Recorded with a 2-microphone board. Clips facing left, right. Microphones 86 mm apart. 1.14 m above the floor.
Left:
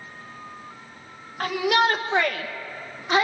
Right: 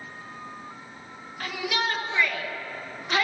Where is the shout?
50° left (ahead or behind), 2.5 m; by 3.3 s 20° left (ahead or behind), 1.1 m.